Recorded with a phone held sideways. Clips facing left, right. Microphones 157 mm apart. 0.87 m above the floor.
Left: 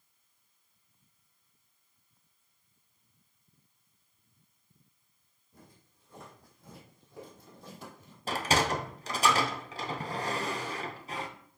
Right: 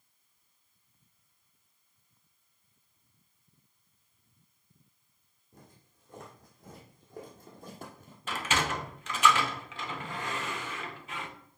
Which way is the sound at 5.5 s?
50° right (ahead or behind).